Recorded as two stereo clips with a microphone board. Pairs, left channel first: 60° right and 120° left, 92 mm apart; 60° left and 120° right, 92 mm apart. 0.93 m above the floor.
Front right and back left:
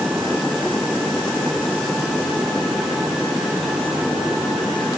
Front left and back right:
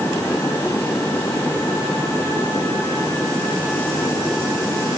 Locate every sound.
Only background noise.